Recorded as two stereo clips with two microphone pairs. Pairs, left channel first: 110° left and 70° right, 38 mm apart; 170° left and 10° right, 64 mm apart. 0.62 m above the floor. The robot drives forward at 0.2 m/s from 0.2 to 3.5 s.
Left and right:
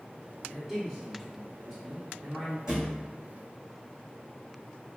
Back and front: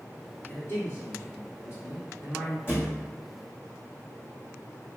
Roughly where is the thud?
Behind right.